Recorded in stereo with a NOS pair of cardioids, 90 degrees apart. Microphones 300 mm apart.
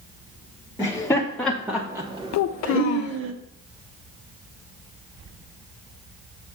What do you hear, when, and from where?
0.8 s laughter: 15° left, 1.4 m; by 3.3 s 45° right, 1.1 m
2.3 s a child speaking: 60° left, 0.5 m